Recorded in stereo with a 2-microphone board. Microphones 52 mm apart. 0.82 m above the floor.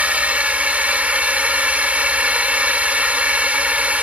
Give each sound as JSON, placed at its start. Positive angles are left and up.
{"t": 0.0, "sound": "a drone", "side_deg": -25}